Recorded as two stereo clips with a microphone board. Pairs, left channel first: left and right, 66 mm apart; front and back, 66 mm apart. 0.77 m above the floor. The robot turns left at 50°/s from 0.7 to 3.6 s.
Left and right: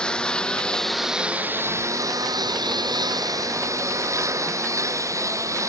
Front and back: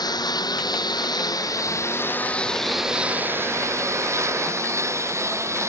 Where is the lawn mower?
10° left; by 5.7 s 135° right.